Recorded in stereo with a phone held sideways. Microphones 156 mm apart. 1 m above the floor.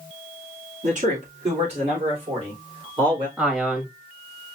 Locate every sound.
0.8 s a man speaking: 55° right (ahead or behind), 3 m; by 3.3 s 30° right (ahead or behind), 4 m
3.4 s a man speaking: 5° right (ahead or behind), 1.5 m